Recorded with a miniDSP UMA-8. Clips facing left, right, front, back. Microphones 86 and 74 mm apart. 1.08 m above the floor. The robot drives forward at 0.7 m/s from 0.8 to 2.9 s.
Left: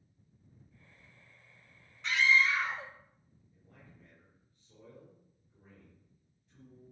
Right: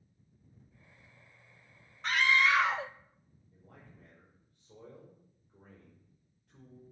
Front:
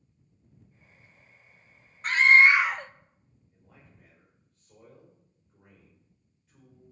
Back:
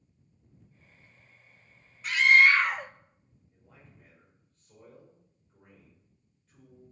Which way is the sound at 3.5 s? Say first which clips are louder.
Right 3 dB, even; 90° right.